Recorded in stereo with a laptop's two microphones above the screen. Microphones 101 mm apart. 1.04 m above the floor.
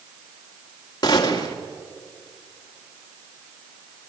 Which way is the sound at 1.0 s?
45° left (ahead or behind).